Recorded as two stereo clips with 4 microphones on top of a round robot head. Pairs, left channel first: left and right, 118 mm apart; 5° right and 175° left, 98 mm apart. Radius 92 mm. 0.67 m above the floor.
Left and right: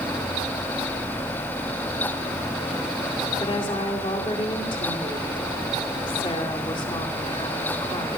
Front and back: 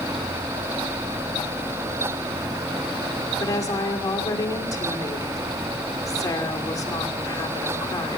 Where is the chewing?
I don't hear chewing.